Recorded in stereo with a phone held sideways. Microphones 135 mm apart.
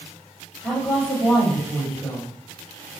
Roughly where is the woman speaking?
Centre.